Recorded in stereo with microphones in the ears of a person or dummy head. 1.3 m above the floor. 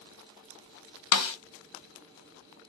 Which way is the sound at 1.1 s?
65° left (ahead or behind).